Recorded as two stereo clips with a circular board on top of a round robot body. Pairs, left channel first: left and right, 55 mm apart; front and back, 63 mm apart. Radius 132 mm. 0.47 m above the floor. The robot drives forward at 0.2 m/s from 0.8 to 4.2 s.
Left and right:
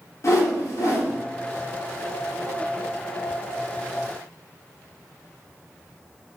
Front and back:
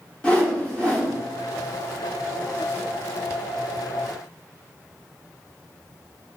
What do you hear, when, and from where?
0.2 s a whoosh: 70° left, 1.0 m; by 1.1 s 75° left, 1.0 m